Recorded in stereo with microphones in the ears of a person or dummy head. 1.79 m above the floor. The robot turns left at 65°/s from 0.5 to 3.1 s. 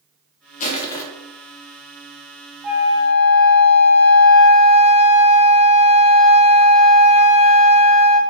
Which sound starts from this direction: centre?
A flute, at 2.6 s.